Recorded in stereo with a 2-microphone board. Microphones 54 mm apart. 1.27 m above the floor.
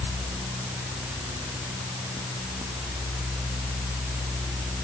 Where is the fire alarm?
I don't hear a fire alarm.